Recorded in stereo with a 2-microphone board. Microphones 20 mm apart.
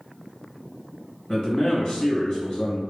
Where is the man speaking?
40° left (ahead or behind), 1.4 m.